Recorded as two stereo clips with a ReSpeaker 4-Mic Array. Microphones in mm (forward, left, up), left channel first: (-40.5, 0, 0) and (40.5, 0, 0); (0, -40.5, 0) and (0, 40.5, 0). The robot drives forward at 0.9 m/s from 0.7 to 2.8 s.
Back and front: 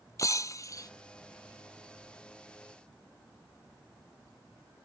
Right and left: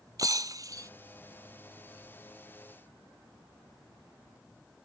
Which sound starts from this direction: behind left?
Breaking glass, at 0.2 s.